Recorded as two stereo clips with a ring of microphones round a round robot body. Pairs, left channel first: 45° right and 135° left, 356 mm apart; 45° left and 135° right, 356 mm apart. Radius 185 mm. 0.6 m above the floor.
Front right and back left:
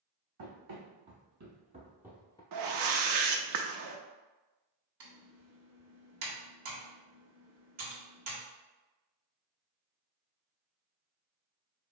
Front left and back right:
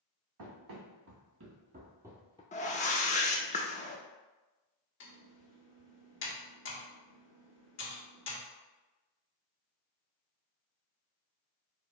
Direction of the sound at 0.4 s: 175° right.